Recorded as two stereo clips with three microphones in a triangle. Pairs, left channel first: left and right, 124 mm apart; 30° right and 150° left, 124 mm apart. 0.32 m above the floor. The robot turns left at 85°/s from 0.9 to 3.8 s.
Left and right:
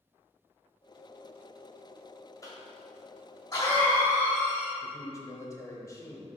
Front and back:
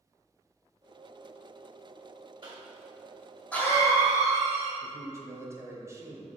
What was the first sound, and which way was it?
A cough, 135° left.